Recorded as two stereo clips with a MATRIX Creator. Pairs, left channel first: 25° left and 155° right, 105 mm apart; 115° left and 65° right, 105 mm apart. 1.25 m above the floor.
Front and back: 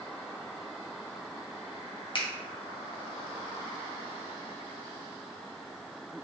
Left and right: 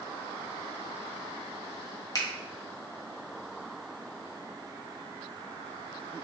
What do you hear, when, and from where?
2.1 s a finger snap: 60° left, 0.6 m